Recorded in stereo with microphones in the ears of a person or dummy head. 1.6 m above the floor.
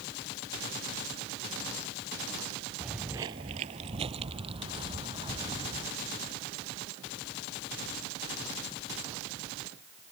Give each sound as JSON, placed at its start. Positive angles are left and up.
{"t": 2.8, "sound": "footsteps", "side_deg": -5}